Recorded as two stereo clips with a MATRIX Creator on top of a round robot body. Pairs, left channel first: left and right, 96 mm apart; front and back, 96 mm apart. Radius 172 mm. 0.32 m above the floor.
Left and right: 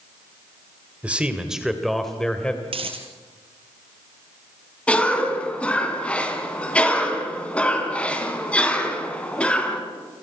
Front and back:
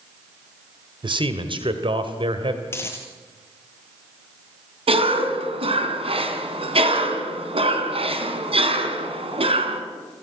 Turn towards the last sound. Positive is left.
turn(degrees=165)